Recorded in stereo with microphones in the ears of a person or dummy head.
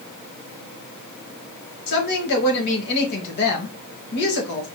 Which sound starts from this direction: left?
A woman speaking, at 1.9 s.